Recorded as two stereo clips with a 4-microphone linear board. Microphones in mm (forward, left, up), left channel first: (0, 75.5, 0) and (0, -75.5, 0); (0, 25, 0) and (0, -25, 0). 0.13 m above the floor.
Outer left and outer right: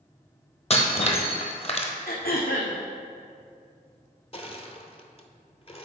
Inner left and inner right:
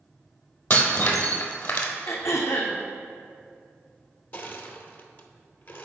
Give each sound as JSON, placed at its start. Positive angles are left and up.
{"t": 0.7, "sound": "breaking glass", "side_deg": 45, "distance_m": 1.0}
{"t": 2.1, "sound": "throat clearing", "side_deg": 80, "distance_m": 1.3}
{"t": 4.3, "sound": "crushing", "side_deg": 40, "distance_m": 0.7}